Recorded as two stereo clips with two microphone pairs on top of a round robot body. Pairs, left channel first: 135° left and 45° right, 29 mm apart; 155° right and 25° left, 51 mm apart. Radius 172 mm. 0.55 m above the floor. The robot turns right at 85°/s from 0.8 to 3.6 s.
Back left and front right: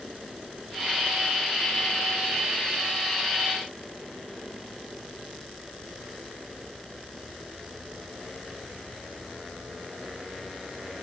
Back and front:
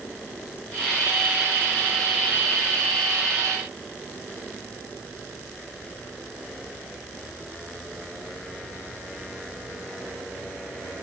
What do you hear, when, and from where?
Only background noise.